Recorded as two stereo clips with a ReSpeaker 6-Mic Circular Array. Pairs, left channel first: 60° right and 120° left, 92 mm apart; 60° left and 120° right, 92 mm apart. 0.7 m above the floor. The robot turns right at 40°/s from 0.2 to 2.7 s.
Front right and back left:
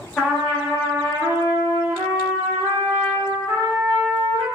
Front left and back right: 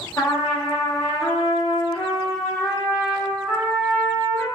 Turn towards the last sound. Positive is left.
turn(degrees=125)